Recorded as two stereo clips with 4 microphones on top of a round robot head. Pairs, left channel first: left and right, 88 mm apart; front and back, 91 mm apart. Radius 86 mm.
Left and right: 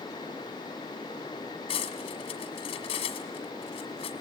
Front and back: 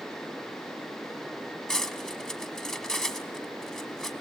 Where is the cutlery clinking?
80° left, 1.7 m.